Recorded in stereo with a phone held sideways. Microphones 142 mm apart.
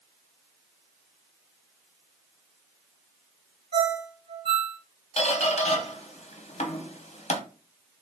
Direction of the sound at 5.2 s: 50° left (ahead or behind).